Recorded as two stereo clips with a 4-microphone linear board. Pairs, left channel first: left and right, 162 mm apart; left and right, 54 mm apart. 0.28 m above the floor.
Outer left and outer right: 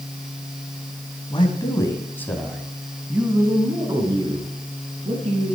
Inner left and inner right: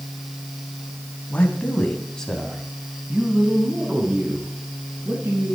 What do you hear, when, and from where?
1.3 s a man speaking: 30° left (ahead or behind), 3 m; by 5.5 s 50° right (ahead or behind), 4 m